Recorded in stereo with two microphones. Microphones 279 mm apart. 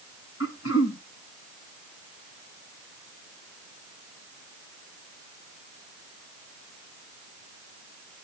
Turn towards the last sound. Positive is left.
turn(degrees=60)  # may be behind; listen again after turning